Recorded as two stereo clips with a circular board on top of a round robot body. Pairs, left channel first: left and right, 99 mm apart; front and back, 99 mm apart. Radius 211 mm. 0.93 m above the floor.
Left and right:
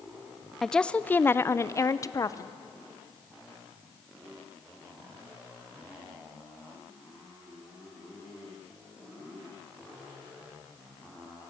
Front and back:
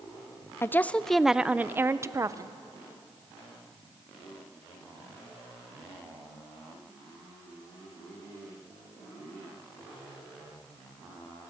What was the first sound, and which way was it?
A woman speaking, 10° left.